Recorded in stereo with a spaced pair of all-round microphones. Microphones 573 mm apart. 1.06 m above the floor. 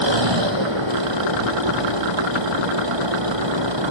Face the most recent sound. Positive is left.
turn(degrees=-50)  # may be behind; listen again after turning